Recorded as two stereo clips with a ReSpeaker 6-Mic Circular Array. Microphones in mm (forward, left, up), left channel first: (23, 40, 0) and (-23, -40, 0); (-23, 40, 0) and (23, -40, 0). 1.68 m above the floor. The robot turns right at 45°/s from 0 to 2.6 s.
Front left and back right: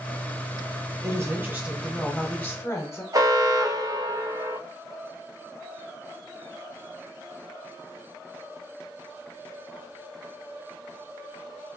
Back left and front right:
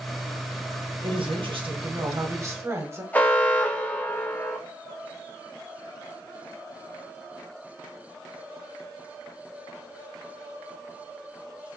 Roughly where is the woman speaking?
Right.